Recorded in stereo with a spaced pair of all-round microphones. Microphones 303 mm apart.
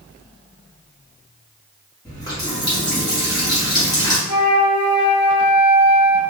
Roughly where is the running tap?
Centre.